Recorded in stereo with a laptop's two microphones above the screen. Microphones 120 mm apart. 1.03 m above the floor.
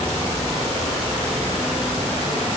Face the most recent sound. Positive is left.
No sound to turn to.